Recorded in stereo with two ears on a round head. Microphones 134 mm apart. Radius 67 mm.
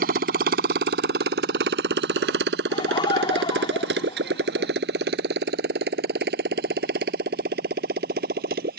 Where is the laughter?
35° left (ahead or behind).